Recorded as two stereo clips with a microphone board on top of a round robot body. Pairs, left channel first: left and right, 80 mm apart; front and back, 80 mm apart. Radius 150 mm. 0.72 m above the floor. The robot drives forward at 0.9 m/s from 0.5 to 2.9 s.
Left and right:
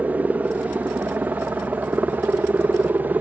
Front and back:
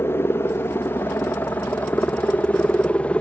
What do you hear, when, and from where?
0.0 s a helicopter: 35° right; by 3.2 s 55° right